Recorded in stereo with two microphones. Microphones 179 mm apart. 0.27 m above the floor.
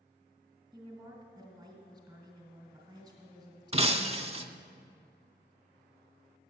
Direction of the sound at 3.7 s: 35° right (ahead or behind).